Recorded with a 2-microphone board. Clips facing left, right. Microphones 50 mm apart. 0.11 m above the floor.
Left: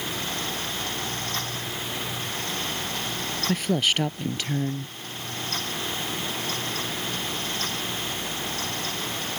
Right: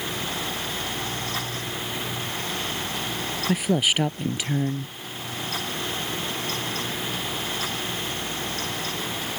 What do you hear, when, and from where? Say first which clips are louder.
3.5 s a woman speaking: right 2 dB; 10° right (ahead or behind)